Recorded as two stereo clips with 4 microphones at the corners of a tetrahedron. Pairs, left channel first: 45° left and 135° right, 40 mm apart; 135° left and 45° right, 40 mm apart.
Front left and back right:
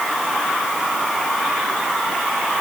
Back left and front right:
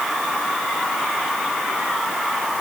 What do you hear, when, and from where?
Only background noise.